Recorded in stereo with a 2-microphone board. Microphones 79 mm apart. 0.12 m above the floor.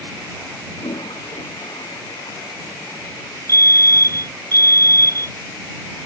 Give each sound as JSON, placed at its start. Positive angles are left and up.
{"t": 0.8, "sound": "a toilet flushing", "side_deg": 80}
{"t": 3.5, "sound": "a fire alarm", "side_deg": -45}